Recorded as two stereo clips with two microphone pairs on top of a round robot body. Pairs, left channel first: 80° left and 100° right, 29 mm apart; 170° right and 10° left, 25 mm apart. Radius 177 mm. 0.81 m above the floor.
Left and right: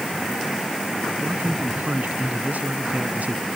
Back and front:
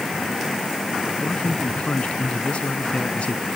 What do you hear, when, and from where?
1.2 s a man speaking: 130° right